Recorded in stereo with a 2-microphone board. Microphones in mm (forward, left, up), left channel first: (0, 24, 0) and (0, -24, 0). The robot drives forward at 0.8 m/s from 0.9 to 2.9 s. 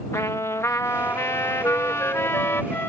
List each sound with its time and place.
0.1 s a trumpet: 85° left; by 2.6 s 60° left (ahead or behind)
1.6 s a flute: 85° left; by 2.9 s 60° left (ahead or behind)